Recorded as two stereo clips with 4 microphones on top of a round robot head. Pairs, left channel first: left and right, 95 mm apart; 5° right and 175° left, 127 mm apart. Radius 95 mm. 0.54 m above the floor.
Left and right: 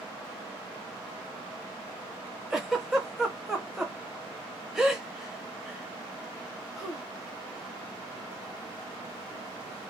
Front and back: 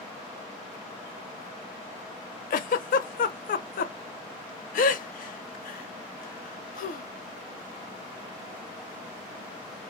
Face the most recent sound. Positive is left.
turn(degrees=-5)